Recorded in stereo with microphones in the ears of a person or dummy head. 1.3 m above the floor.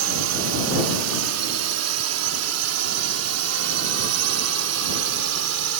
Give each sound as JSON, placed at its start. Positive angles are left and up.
{"t": 0.0, "sound": "a drone", "side_deg": -70}